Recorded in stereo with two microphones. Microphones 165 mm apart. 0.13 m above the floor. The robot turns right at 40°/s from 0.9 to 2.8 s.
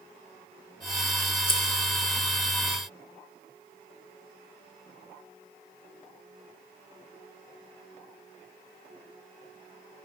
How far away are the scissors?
About 1.3 m.